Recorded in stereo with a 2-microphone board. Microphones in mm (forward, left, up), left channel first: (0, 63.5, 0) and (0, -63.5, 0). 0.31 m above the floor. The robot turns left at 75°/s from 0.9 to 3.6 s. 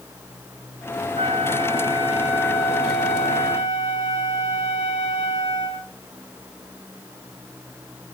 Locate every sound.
1.1 s a flute: 90° right, 6 m; by 5.9 s 90° left, 6 m